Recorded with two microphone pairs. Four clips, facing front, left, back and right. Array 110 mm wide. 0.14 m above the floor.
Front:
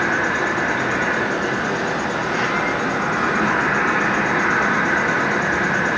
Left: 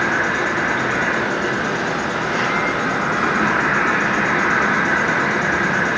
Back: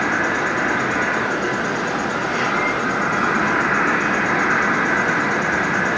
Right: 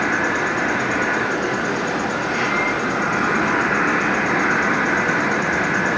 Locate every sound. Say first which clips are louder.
0.0 s an insect: left 1 dB, even; 120° left, 2.5 m